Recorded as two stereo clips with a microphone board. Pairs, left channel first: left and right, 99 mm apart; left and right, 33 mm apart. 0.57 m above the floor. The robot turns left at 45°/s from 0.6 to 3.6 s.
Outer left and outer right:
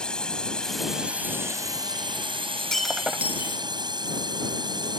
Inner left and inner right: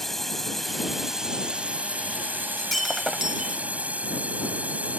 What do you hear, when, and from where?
0.0 s a drone: 10° left; by 5.0 s 125° right
2.6 s breaking glass: 10° left; by 3.6 s 35° right